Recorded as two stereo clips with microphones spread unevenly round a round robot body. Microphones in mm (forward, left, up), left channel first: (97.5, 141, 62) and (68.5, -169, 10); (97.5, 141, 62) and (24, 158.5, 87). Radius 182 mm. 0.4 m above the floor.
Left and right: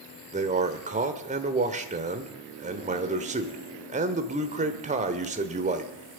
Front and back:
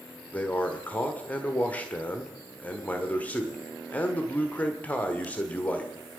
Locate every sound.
0.3 s a man speaking: 50° right, 1.4 m